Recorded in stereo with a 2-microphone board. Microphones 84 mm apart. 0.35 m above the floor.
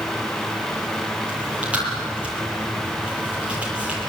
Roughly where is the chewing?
Centre.